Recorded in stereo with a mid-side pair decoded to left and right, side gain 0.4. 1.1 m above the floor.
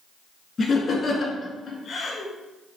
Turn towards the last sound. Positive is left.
turn(degrees=55)